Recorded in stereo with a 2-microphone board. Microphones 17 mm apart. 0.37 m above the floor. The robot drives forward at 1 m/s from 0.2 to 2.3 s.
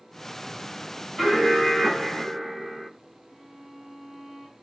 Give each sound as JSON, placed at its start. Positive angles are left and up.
{"t": 1.2, "sound": "an alarm", "side_deg": -5, "distance_m": 3.5}
{"t": 3.3, "sound": "a violin", "side_deg": 5, "distance_m": 2.5}